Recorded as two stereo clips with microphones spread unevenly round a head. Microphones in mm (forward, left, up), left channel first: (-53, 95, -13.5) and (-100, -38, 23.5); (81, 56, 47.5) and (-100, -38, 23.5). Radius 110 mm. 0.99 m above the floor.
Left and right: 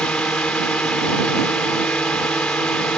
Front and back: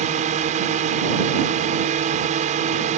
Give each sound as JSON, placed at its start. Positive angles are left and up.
{"t": 0.0, "sound": "a drone", "azimuth_deg": 155}